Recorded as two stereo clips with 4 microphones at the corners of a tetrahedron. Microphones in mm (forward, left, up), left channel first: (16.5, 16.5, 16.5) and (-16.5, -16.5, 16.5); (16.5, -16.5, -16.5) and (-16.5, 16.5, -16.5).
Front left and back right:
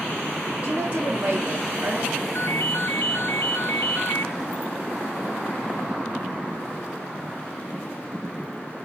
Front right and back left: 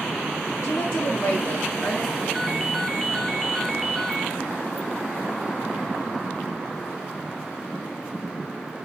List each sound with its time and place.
0.6 s a woman speaking: 75° right, 5 m; by 2.2 s 85° right, 6 m
2.4 s a ringtone: 40° left, 1.0 m